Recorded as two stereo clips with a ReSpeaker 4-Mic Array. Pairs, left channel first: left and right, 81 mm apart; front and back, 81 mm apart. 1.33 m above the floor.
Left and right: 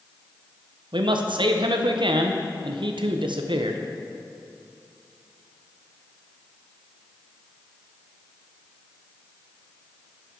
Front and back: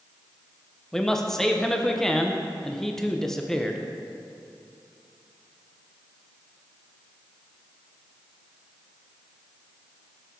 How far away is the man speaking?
About 0.6 m.